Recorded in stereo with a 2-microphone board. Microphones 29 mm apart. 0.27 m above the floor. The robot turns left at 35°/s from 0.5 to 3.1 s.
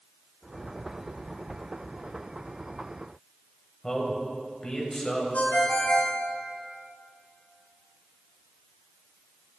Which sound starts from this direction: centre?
A man speaking, at 3.8 s.